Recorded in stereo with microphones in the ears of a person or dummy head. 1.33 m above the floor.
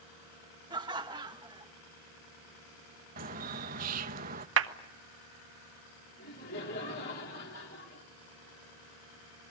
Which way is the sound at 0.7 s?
20° right (ahead or behind).